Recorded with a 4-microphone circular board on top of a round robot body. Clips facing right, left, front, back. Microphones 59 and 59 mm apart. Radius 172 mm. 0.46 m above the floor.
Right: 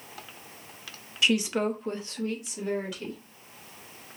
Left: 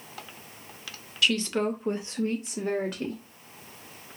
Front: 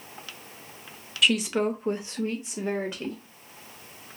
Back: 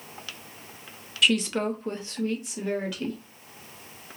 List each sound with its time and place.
1.2 s a woman speaking: 90° right, 0.8 m; by 3.2 s 65° left, 1.3 m